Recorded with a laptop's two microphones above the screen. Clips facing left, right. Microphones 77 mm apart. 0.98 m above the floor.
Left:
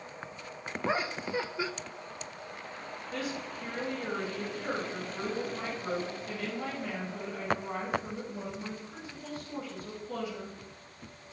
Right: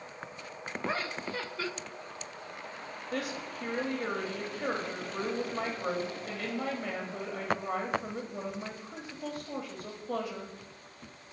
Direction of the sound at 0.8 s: 15° left (ahead or behind).